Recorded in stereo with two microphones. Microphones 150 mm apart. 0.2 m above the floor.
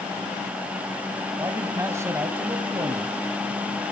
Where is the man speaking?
20° right (ahead or behind), 1.2 m.